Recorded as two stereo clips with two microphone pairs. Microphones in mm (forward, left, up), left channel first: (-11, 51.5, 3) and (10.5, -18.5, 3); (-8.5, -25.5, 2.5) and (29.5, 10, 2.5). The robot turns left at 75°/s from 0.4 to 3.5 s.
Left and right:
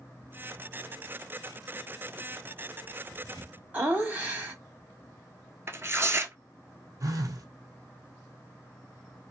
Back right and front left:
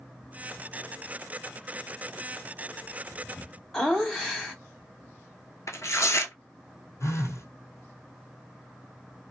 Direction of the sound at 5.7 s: 130° right.